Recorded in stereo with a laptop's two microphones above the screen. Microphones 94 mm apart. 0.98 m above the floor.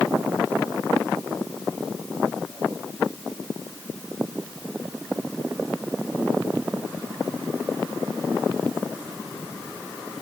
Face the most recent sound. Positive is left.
No sound to turn to.